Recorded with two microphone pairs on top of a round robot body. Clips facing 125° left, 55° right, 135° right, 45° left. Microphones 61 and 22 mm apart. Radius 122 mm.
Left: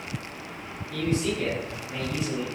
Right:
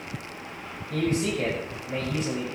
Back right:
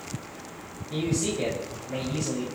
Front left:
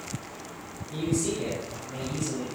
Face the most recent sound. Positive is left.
turn(degrees=-90)